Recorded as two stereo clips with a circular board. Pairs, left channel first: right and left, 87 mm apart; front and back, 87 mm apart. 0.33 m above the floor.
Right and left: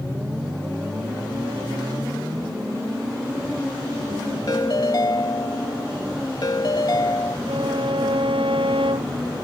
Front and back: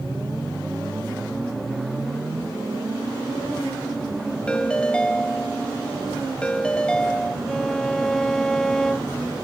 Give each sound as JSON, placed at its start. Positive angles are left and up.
{"t": 4.5, "sound": "a ringtone", "azimuth_deg": -75}
{"t": 7.5, "sound": "a violin", "azimuth_deg": 85}